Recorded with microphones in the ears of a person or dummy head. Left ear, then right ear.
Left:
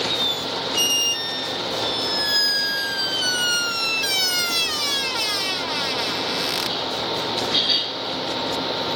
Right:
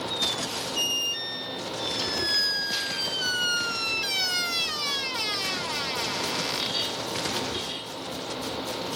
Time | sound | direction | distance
0.1 | a squeak | 15° left (ahead or behind) | ?